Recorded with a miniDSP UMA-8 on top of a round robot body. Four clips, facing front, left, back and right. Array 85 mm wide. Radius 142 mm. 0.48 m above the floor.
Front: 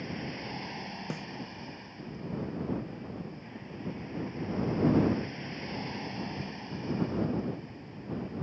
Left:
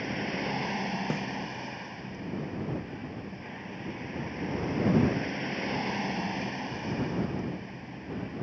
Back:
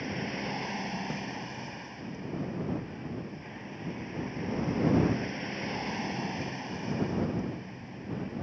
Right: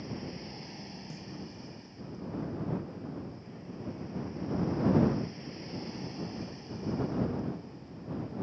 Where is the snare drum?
80° left.